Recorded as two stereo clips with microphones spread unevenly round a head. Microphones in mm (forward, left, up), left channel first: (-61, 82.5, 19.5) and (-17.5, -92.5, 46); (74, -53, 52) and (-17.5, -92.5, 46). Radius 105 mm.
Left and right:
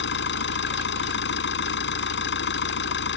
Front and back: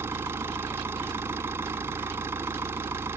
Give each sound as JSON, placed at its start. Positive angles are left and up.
{"t": 0.0, "sound": "an engine running", "azimuth_deg": 125}